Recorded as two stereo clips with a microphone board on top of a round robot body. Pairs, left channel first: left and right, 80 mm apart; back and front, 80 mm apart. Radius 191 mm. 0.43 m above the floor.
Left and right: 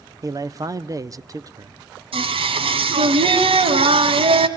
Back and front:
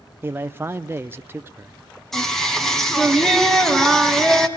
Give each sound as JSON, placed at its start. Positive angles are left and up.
{"t": 0.2, "sound": "a man speaking", "azimuth_deg": -55, "distance_m": 1.0}
{"t": 2.1, "sound": "singing", "azimuth_deg": -95, "distance_m": 2.0}